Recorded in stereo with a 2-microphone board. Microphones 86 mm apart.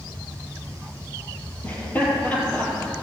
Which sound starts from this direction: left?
Laughter, at 1.6 s.